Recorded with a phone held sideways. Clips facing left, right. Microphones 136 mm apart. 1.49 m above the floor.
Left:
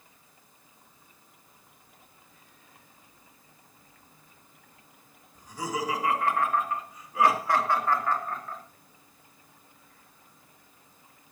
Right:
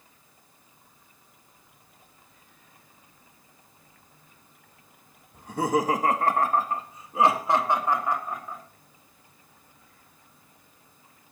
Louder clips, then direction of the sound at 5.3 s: Right 8 dB; 60° right (ahead or behind).